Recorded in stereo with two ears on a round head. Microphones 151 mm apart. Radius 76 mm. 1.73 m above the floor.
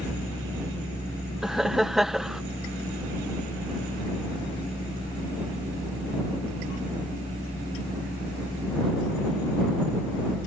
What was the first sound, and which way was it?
Laughter, centre (ahead or behind).